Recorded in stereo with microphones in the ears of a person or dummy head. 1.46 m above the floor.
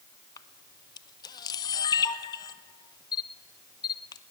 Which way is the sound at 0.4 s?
25° left (ahead or behind).